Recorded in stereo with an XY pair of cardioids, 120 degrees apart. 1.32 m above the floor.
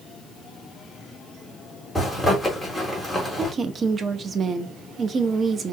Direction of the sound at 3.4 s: 35° right.